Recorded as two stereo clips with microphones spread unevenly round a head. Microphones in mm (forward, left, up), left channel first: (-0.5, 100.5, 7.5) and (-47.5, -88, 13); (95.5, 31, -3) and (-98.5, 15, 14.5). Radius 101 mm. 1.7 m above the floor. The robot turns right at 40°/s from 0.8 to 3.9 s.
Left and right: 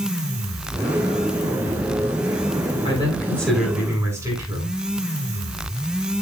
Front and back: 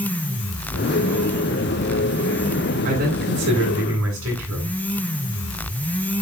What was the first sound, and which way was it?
A man speaking, 140° left.